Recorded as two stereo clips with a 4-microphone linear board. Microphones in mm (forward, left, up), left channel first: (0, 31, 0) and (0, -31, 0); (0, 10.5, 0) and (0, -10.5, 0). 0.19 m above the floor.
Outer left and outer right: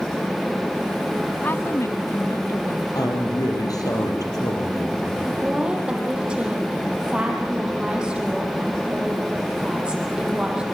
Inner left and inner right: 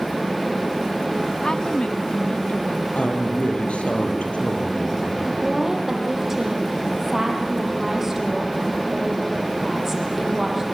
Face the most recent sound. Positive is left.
turn(degrees=-15)  # may be behind; listen again after turning